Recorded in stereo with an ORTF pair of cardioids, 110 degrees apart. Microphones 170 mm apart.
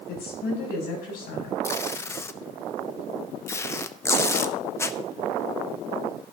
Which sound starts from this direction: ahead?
Tape being pulled, at 1.6 s.